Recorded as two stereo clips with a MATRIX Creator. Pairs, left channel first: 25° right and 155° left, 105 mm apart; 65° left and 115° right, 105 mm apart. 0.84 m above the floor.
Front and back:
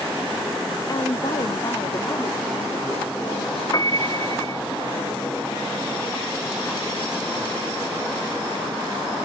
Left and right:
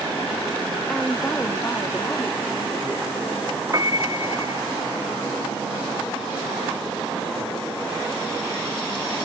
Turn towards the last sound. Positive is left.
turn(degrees=-65)